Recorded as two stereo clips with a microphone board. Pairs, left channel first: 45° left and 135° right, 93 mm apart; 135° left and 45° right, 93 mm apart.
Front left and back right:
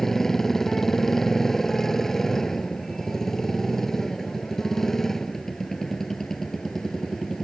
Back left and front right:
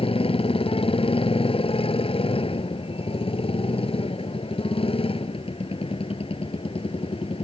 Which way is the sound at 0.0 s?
130° left.